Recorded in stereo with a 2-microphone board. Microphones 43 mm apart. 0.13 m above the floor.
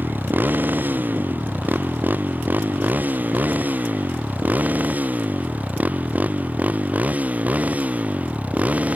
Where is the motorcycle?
45° right (ahead or behind); by 9.0 s 35° right (ahead or behind).